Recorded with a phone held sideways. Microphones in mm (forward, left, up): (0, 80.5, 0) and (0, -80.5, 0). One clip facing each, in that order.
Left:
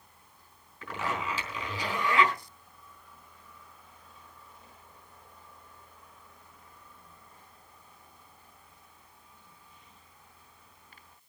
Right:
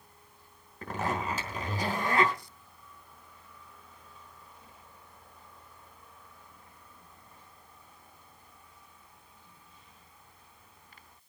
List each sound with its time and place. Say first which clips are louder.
0.8 s a zipper: right 2 dB; 45° right (ahead or behind), 4 m